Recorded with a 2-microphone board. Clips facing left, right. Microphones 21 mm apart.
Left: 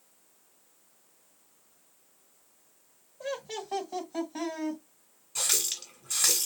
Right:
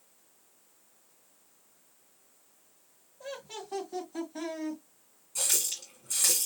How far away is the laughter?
About 1.6 m.